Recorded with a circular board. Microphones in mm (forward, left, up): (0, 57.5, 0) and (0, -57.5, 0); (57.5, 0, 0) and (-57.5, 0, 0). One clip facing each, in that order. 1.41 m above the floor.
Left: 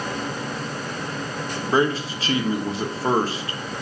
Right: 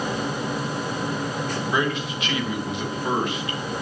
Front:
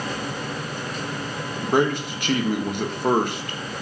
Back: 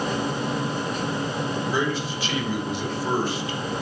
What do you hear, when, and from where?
1.6 s a man speaking: 35° left, 1.2 m